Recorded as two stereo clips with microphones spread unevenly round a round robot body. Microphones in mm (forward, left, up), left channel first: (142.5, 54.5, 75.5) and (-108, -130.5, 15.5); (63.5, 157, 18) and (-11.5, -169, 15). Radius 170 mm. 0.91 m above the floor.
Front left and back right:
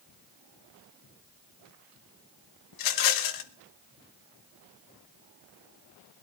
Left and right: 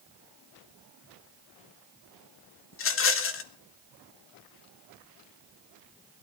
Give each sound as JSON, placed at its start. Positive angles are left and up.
{"t": 2.7, "sound": "a rattle", "azimuth_deg": 30, "distance_m": 1.3}